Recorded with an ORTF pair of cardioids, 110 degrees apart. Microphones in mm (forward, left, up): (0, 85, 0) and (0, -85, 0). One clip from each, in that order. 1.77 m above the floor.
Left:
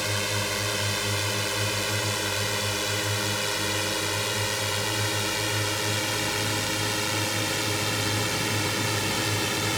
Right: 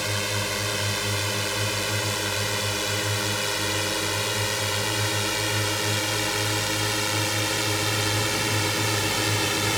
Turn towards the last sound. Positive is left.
turn(degrees=-15)